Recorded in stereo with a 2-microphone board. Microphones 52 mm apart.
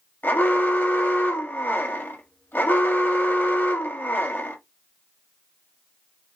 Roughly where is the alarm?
Left.